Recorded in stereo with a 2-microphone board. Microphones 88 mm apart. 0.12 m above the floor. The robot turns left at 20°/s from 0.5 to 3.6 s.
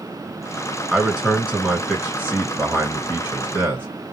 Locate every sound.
0.9 s a man speaking: 10° right (ahead or behind), 1.5 m; by 3.9 s 25° right (ahead or behind), 1.5 m